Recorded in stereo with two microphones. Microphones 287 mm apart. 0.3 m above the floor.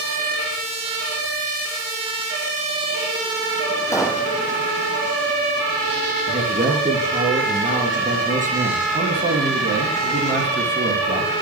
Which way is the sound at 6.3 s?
25° right (ahead or behind).